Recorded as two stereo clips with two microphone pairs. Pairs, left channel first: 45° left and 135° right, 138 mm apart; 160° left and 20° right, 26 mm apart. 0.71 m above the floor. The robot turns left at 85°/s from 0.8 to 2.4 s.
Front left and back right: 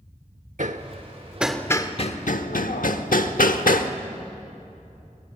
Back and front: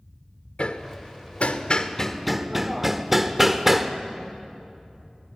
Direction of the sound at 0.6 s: 165° right.